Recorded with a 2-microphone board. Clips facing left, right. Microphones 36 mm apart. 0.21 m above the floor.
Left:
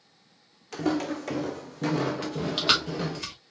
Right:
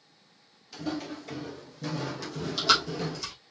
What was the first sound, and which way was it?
Footsteps, 70° left (ahead or behind).